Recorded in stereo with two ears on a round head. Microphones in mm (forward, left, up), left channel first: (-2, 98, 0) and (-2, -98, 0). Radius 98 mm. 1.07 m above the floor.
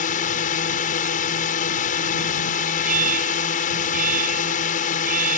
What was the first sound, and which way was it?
A drone, 40° left (ahead or behind).